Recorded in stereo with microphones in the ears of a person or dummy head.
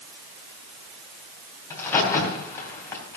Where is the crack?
20° left (ahead or behind), 3 m.